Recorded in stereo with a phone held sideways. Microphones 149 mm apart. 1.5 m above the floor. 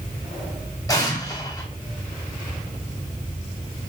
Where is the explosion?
20° left (ahead or behind), 4 m.